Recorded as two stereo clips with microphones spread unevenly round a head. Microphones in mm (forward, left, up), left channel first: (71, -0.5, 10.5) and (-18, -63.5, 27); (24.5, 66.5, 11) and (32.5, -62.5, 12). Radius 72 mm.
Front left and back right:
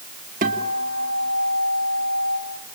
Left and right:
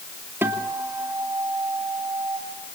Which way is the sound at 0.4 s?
165° right.